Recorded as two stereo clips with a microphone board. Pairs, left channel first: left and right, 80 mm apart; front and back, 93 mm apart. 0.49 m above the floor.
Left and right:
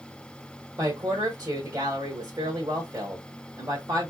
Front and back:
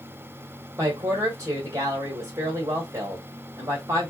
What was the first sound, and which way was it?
A woman speaking, 130° right.